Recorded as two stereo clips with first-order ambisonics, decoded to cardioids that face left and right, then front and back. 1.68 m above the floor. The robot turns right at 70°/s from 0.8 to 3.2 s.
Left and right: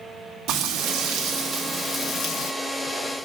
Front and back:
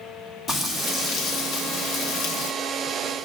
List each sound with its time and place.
0.5 s frying: 65° right, 1.5 m; by 2.5 s 55° left, 1.5 m